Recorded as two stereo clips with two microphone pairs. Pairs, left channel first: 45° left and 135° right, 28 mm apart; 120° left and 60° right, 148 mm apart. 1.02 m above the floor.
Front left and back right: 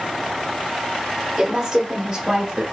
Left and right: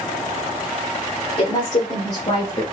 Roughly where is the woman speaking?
Behind left.